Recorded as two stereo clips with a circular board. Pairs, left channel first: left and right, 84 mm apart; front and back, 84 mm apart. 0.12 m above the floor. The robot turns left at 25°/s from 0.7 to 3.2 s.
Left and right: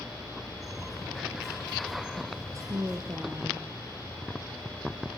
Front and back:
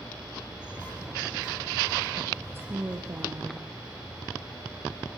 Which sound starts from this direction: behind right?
A woman speaking, at 2.5 s.